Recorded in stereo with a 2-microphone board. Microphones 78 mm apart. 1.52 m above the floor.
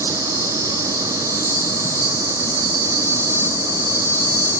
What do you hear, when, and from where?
0.0 s an insect: 40° left (ahead or behind), 2 m